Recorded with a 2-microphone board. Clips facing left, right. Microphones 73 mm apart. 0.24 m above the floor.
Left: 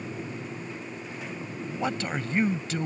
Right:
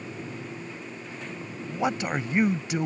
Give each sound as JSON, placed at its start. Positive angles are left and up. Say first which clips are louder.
{"t": 1.7, "sound": "a man speaking", "louder": "right 3 dB", "side_deg": -15}